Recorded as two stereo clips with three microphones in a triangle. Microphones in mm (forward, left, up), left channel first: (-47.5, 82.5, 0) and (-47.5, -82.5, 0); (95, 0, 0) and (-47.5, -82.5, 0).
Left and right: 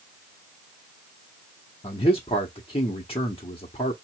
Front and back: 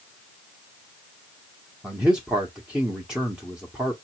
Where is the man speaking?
130° left, 0.8 m.